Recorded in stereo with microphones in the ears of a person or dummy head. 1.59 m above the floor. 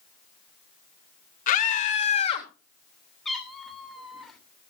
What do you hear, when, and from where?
1.5 s a scream: 50° left (ahead or behind), 3 m; by 2.5 s 35° left (ahead or behind), 3.5 m
3.2 s a cat meowing: 5° left (ahead or behind), 2.5 m